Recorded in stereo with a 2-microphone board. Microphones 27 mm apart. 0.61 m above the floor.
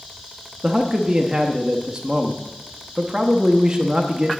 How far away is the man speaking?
About 0.7 m.